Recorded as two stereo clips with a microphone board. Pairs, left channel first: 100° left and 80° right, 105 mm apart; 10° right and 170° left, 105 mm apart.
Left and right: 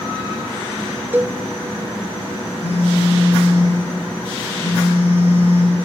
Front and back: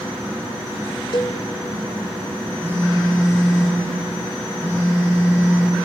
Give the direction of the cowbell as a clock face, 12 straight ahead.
1 o'clock.